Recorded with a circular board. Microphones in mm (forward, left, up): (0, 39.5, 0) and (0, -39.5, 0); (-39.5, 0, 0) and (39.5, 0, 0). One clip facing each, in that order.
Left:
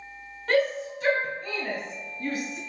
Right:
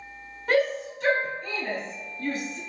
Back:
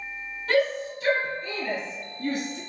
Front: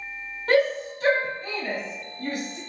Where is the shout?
10° right, 1.1 m; by 2.6 s 15° left, 2 m.